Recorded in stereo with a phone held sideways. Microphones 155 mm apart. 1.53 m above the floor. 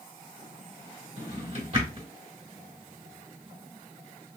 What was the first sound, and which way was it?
A drawer, 40° right (ahead or behind).